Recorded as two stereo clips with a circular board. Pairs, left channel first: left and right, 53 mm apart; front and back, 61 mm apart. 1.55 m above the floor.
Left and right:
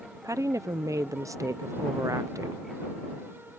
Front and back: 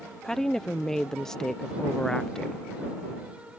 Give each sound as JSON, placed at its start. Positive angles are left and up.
{"t": 0.2, "sound": "a woman speaking", "azimuth_deg": -80}